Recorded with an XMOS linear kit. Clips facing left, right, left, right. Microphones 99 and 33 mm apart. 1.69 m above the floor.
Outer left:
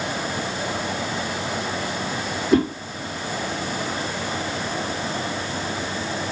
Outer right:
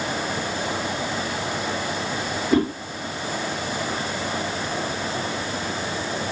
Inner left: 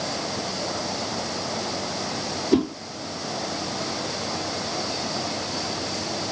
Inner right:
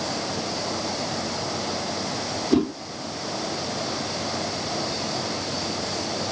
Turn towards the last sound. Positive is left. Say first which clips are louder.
# outer left 2 dB, even
turn(degrees=0)  # may be behind; listen again after turning